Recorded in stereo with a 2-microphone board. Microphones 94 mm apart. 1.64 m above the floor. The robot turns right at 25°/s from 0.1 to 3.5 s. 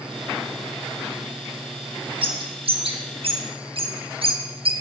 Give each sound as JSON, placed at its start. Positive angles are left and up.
{"t": 2.2, "sound": "a bird", "side_deg": -70, "distance_m": 1.7}